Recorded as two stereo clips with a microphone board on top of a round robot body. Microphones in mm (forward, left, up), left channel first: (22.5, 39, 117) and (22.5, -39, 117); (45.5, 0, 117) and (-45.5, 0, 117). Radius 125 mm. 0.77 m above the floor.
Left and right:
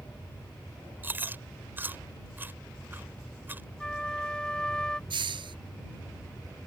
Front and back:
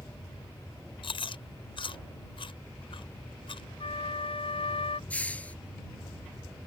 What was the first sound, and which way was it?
Chewing, 25° right.